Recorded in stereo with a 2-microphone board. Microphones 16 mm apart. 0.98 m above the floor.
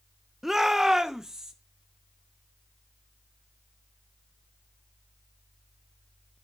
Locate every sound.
0.4 s a shout: 20° right (ahead or behind), 0.6 m; by 1.5 s 35° right (ahead or behind), 1.2 m